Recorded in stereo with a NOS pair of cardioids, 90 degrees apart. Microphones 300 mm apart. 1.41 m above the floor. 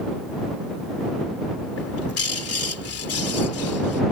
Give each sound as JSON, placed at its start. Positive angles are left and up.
{"t": 1.8, "sound": "a bird", "azimuth_deg": 50}